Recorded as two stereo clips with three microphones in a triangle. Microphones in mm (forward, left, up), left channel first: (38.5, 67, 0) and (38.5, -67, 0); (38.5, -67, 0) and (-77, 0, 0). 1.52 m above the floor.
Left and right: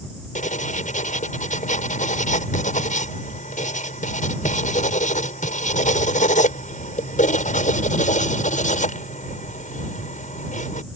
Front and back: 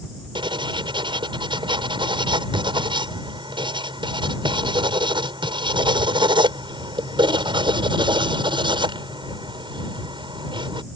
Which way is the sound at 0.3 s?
100° left.